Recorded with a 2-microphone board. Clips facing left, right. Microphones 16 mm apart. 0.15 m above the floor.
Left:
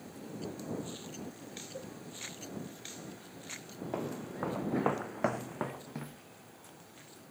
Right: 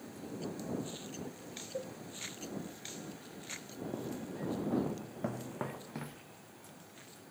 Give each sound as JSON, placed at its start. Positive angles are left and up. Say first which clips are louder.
{"t": 1.7, "sound": "a cowbell", "louder": "right 6 dB", "side_deg": -40}
{"t": 3.9, "sound": "footsteps", "louder": "left 4 dB", "side_deg": 55}